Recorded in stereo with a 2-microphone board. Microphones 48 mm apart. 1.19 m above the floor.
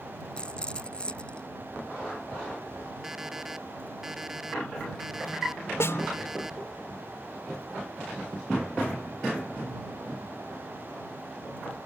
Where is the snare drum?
65° left (ahead or behind).